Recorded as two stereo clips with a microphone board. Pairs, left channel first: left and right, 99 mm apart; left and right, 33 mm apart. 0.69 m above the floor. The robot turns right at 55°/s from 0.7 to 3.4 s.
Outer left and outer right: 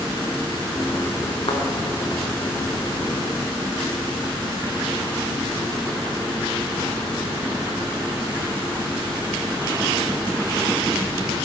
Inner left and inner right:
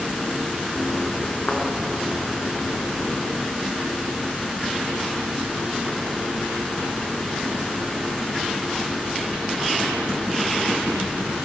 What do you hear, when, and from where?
1.5 s a thud: 60° left (ahead or behind), 2 m; by 1.6 s 65° left (ahead or behind), 2 m